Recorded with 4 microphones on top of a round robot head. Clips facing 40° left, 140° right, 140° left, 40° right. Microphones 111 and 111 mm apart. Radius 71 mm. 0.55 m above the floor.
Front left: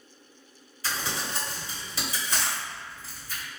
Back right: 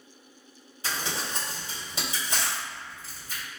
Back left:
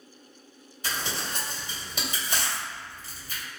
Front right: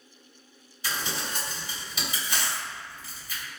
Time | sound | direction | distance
0.8 | crumpling | 160° left | 1.9 m